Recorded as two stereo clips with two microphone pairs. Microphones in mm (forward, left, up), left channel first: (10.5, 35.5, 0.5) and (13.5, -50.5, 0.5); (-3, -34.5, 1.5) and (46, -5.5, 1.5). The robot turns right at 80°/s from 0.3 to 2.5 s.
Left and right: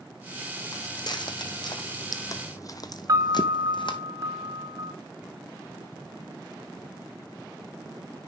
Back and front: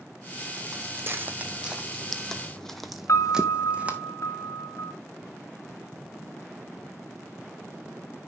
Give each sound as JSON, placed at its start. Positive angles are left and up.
{"t": 0.7, "sound": "footsteps", "azimuth_deg": 50, "distance_m": 1.3}
{"t": 3.1, "sound": "a piano", "azimuth_deg": -130, "distance_m": 1.8}